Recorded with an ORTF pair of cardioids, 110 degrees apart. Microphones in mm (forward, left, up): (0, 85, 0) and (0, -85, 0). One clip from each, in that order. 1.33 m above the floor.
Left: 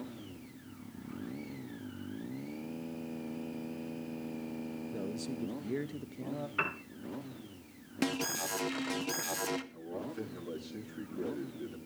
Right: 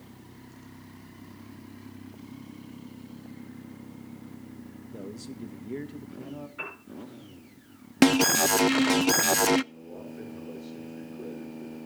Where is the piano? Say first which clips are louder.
Left 5 dB; 60° left, 4 m.